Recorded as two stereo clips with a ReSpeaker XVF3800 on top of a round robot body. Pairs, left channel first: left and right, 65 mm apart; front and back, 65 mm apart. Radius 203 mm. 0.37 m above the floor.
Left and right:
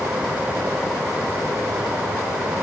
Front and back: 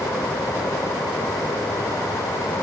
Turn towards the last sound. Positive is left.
No sound to turn to.